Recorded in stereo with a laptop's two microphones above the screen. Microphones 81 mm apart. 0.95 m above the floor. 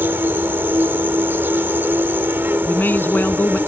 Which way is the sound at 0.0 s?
25° right (ahead or behind).